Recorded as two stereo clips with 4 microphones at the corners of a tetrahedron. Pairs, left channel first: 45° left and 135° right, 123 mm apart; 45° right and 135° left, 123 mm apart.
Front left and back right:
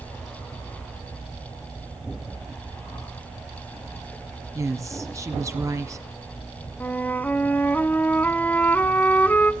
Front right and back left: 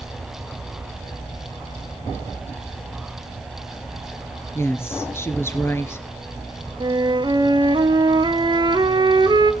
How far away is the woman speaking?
About 1.4 m.